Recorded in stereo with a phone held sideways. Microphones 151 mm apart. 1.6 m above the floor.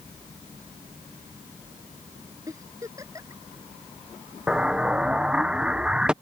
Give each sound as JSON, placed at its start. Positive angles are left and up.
{"t": 2.5, "sound": "a giggle", "side_deg": -20}
{"t": 4.5, "sound": "an explosion", "side_deg": -5}